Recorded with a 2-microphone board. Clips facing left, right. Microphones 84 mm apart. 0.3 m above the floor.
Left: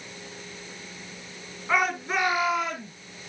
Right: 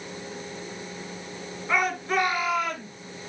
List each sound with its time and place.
1.7 s a shout: 10° left (ahead or behind), 4.5 m; by 2.9 s 15° left (ahead or behind), 5 m